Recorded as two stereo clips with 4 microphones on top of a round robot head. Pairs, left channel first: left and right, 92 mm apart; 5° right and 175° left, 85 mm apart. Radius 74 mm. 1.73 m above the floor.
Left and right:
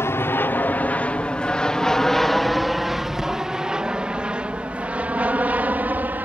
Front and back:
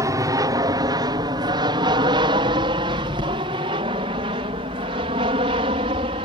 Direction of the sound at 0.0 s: 145° left.